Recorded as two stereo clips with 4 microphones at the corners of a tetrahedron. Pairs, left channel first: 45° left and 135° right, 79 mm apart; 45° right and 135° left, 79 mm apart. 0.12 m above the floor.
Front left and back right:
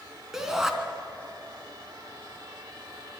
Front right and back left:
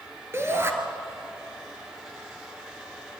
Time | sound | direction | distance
0.3 | a shout | 145° left | 1.8 m